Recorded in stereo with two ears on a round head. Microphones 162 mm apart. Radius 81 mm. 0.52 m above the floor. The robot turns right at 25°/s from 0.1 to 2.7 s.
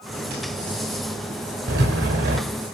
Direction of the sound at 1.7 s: 65° right (ahead or behind).